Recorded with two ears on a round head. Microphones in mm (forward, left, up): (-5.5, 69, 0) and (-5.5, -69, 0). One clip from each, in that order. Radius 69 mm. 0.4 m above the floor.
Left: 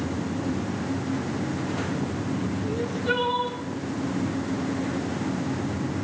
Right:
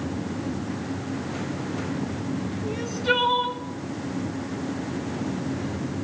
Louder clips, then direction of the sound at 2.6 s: Right 3 dB; 75° right (ahead or behind).